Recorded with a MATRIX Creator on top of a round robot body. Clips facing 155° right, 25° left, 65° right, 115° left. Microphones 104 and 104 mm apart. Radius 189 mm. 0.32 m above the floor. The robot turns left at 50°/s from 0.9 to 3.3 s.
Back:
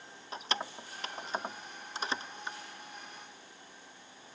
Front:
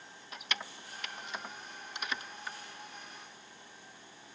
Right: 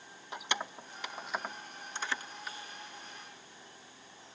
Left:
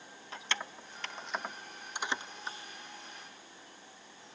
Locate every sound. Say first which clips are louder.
0.3 s keys jangling: back 5 dB, right 2 dB; 130° right, 0.8 m; by 2.6 s 145° left, 0.8 m